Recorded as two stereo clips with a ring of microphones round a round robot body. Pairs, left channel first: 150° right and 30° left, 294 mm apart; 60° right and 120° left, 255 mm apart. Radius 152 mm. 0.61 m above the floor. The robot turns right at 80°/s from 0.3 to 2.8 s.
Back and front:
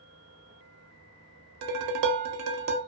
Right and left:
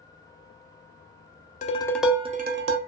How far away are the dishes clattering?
About 0.5 m.